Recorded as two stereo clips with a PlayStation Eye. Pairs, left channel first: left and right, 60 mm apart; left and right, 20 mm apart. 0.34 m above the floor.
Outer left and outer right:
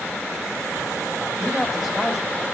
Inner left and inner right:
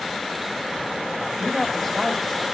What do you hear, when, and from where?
1.2 s a man speaking: centre (ahead or behind), 1.6 m